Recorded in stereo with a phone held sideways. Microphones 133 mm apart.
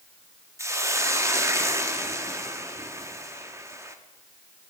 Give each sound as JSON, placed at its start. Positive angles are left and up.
{"t": 0.6, "sound": "a hiss", "side_deg": -20, "distance_m": 0.7}